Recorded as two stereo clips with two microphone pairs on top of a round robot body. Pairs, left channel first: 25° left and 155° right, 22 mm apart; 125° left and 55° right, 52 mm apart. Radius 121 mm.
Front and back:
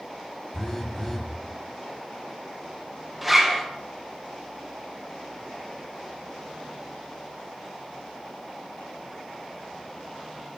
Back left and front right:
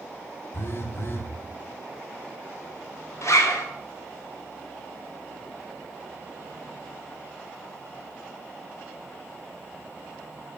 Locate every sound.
0.5 s a phone buzzing: 95° left, 2.5 m
3.2 s a zipper: 120° left, 3 m